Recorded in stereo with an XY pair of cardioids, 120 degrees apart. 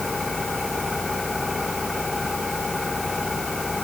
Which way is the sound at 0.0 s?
20° left.